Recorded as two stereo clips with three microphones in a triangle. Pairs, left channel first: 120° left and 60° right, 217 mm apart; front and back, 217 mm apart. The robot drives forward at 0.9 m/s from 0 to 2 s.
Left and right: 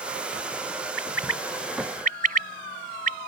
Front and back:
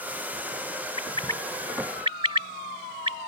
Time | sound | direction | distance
1.0 | a bird | 55° right | ?